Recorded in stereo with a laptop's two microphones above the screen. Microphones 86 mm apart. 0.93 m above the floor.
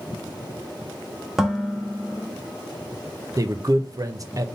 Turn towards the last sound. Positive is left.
turn(degrees=-40)  # may be behind; listen again after turning